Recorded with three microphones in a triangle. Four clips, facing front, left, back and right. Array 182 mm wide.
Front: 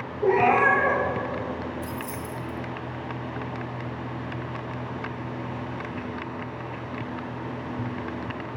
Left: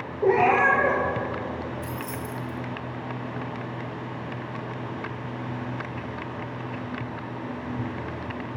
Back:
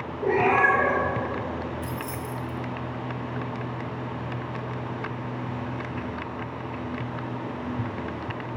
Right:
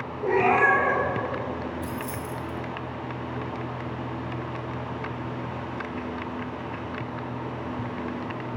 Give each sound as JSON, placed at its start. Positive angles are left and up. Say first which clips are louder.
{"t": 0.2, "sound": "a cat meowing", "louder": "left 2 dB, front 2 dB", "azimuth_deg": 75, "distance_m": 2.0}
{"t": 1.8, "sound": "keys jangling", "louder": "right 1 dB, back 1 dB", "azimuth_deg": 45, "distance_m": 1.0}